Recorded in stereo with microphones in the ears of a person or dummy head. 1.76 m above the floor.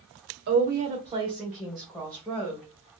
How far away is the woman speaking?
About 0.7 m.